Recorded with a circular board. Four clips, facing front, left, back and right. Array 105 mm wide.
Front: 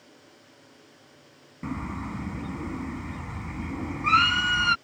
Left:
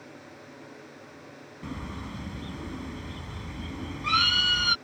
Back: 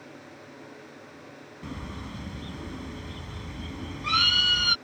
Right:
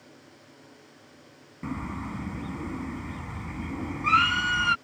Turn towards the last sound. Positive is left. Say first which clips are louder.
# right 4 dB, front 6 dB
turn(degrees=-35)